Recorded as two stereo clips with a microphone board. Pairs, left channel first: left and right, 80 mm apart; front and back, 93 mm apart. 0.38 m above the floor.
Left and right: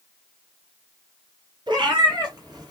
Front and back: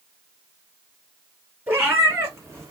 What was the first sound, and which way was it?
A cat meowing, 115° right.